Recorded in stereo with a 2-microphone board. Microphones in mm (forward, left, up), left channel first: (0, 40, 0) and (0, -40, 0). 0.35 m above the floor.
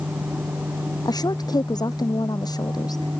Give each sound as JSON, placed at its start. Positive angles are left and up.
{"t": 1.1, "sound": "a woman speaking", "side_deg": 55}